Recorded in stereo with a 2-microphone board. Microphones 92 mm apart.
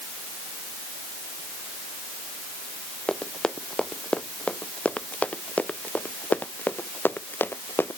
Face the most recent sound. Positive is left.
turn(degrees=25)  # may be behind; listen again after turning